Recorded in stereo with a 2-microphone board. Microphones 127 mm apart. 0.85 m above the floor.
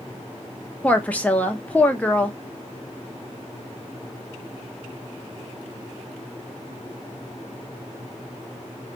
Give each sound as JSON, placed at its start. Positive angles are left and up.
{"t": 0.8, "sound": "a woman speaking", "side_deg": 10, "distance_m": 0.6}